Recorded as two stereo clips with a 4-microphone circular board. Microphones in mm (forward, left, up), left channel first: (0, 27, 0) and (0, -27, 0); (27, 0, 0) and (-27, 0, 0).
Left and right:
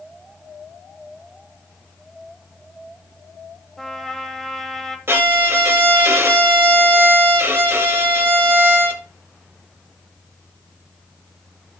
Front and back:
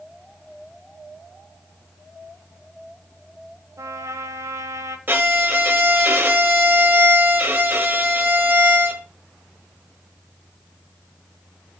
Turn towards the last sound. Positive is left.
turn(degrees=-130)